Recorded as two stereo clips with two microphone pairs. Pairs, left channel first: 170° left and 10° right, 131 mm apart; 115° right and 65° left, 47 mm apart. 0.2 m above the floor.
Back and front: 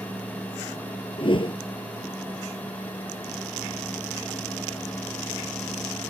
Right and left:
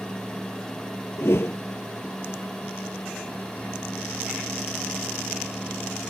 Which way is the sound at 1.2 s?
145° right.